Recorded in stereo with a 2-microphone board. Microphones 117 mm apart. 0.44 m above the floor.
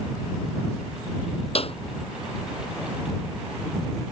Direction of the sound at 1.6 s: 50° left (ahead or behind).